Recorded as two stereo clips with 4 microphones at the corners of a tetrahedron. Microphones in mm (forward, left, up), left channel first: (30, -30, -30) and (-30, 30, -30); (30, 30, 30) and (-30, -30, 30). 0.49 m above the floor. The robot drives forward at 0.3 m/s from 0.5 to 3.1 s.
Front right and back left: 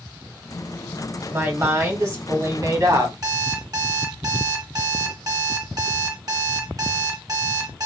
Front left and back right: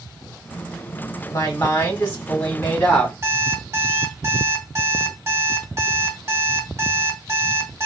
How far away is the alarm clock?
About 1.8 m.